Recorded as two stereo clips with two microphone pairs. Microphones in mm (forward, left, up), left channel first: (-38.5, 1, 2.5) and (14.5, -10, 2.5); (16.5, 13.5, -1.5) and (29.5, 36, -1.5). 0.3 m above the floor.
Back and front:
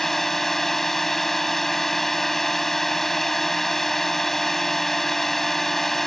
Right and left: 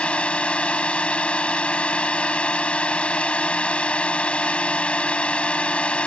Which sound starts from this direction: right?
A drone, at 0.0 s.